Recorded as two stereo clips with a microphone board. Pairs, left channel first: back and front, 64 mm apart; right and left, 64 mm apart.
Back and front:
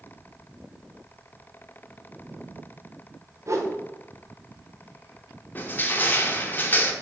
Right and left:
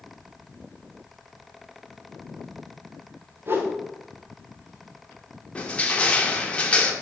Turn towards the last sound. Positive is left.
turn(degrees=-150)